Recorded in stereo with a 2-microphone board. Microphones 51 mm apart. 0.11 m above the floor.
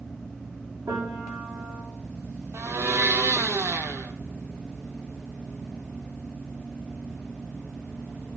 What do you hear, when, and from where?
0.9 s a piano: 70° right (ahead or behind), 3.5 m
2.5 s a blender: 65° right (ahead or behind), 0.6 m